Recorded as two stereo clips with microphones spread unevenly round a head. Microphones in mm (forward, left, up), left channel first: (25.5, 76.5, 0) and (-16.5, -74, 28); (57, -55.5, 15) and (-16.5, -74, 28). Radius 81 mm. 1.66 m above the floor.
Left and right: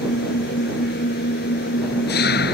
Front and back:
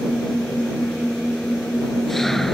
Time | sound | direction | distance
0.0 | an engine running | 105° left | ?